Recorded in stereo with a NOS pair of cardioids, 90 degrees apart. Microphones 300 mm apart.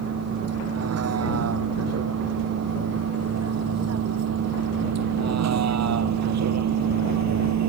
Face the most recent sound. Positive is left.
turn(degrees=-70)